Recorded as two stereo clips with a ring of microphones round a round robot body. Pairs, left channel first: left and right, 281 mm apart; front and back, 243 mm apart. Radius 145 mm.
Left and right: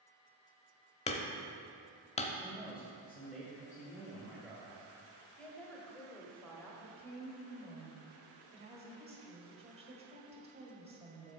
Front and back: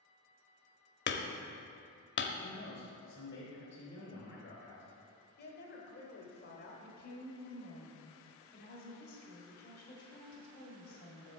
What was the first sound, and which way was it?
Hammering, 25° left.